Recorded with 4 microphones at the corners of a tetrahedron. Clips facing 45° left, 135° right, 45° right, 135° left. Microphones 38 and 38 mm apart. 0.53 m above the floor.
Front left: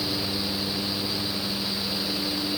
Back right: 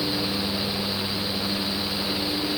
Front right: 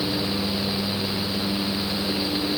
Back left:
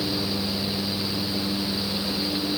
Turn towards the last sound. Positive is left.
No sound to turn to.